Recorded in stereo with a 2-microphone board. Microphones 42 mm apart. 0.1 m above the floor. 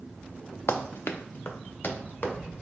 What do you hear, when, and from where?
0.7 s running footsteps: 85° left, 0.5 m; by 2.3 s 45° left (ahead or behind), 1.8 m